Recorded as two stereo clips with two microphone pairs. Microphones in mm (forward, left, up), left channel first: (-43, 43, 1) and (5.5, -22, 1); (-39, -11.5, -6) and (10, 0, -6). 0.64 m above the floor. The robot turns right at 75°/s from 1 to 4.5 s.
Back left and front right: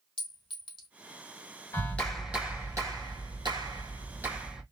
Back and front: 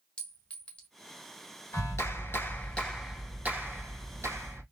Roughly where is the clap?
Behind.